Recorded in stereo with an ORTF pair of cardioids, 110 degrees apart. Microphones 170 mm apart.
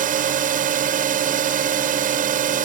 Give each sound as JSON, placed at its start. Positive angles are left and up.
{"t": 0.0, "sound": "a drone", "azimuth_deg": -55}